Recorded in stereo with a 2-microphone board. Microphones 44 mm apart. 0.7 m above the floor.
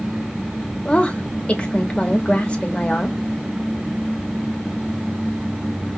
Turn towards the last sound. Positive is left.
turn(degrees=25)  # may be behind; listen again after turning